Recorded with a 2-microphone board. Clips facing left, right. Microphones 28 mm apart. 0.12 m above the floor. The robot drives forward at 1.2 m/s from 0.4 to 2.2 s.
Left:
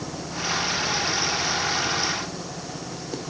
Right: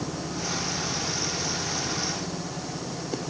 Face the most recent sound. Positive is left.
No sound to turn to.